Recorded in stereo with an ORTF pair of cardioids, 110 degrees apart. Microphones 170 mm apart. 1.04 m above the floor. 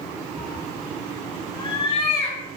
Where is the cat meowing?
Straight ahead, 1.7 m; by 2.4 s 40° left, 3 m.